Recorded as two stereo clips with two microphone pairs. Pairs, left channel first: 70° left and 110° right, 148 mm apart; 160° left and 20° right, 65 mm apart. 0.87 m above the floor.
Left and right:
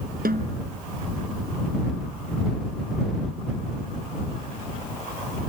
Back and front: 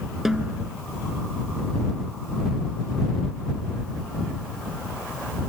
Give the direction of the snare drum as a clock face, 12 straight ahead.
4 o'clock.